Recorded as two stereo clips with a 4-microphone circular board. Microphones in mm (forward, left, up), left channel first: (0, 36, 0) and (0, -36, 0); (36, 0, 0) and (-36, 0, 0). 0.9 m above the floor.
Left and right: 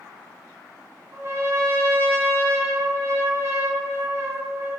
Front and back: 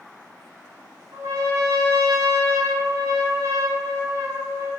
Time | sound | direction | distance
1.1 | a trumpet | 140° right | 0.7 m